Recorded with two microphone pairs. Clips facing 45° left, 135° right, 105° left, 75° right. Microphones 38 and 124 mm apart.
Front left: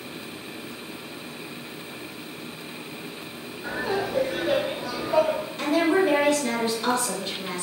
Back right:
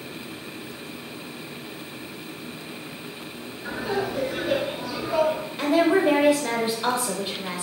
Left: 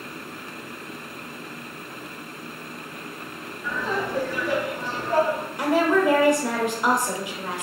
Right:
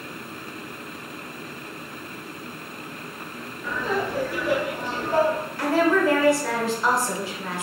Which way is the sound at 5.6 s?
160° left.